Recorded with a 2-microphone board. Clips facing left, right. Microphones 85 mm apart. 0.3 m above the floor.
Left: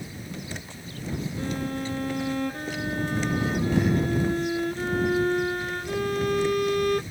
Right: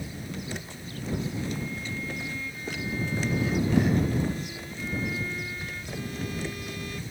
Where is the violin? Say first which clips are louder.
Left 4 dB; 65° left (ahead or behind).